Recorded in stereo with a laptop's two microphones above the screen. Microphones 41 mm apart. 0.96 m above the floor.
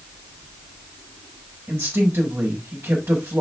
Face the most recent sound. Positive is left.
turn(degrees=-85)